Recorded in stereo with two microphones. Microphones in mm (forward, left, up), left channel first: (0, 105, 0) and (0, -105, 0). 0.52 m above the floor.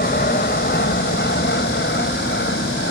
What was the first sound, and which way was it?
An aircraft, 50° left (ahead or behind).